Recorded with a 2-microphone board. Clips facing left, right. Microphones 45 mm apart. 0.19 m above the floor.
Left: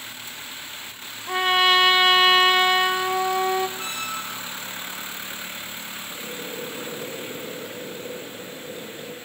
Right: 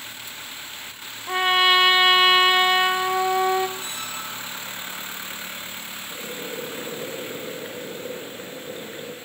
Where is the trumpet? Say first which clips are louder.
Even; 10° right (ahead or behind), 0.8 m.